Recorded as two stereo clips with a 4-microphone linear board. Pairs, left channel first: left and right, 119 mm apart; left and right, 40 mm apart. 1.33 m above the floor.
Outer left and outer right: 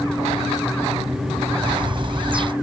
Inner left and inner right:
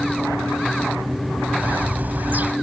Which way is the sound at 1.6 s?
45° right (ahead or behind).